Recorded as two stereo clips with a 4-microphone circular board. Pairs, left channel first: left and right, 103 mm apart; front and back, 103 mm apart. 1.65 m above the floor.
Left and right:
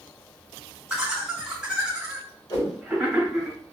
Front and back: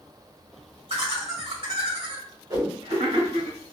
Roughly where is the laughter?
Behind.